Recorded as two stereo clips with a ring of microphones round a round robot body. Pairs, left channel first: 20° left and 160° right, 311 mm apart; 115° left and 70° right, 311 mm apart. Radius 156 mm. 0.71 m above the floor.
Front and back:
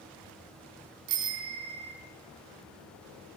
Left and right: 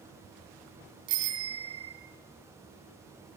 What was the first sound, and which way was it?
A bicycle bell, 110° right.